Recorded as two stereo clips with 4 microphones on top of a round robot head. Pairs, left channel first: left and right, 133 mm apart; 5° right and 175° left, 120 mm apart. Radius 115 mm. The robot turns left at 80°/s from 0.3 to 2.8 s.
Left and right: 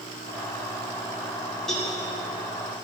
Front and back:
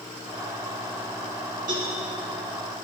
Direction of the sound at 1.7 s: Straight behind.